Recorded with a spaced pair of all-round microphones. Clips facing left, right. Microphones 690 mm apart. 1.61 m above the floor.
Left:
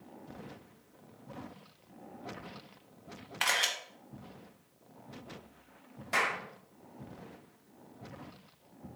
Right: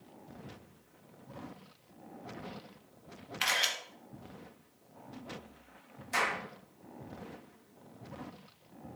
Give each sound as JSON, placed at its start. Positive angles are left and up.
{"t": 3.4, "sound": "a camera shutter", "side_deg": 70, "distance_m": 1.3}
{"t": 6.1, "sound": "a clap", "side_deg": 80, "distance_m": 2.0}